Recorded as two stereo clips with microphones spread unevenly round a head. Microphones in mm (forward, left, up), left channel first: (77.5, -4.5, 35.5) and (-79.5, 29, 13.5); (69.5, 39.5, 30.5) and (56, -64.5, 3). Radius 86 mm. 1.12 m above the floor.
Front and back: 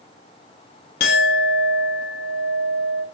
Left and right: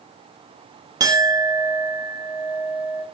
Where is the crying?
I don't hear crying.